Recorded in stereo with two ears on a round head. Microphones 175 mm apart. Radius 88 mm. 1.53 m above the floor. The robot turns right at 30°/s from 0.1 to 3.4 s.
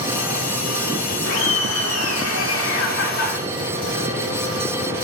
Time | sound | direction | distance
1.3 | laughter | 65° left | 2.5 m